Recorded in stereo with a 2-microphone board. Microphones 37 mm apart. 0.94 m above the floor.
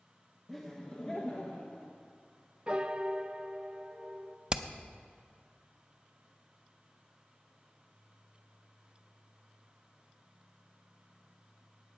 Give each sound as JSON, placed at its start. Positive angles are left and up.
{"t": 0.5, "sound": "laughter", "side_deg": 5, "distance_m": 1.0}
{"t": 2.7, "sound": "a piano", "side_deg": -25, "distance_m": 0.6}
{"t": 4.5, "sound": "hammering", "side_deg": -20, "distance_m": 0.6}